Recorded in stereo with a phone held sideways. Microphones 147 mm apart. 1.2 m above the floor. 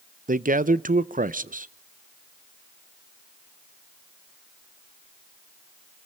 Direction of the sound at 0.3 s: 65° right (ahead or behind).